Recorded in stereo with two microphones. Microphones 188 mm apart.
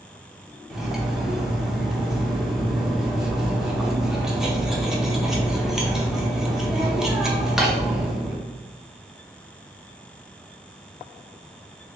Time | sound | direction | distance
0.7 | cutlery clinking | 5° right (ahead or behind) | 0.6 m